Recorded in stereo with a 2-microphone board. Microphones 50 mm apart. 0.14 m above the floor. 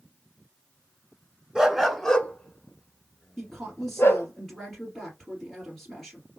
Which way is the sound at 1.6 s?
15° right (ahead or behind).